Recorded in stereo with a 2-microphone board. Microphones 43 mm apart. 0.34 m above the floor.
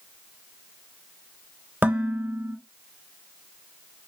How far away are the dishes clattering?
About 0.7 m.